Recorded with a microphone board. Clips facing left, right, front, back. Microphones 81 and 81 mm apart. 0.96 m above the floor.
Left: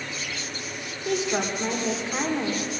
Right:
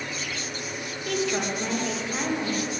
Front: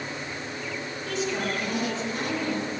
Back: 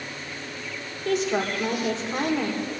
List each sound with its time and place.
1.1 s a woman speaking: 155° left, 2.5 m